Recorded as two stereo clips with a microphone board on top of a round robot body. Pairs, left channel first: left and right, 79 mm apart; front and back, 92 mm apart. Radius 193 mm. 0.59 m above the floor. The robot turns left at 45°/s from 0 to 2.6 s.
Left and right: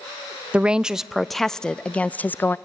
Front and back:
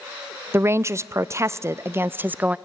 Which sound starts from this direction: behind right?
A woman speaking, at 0.5 s.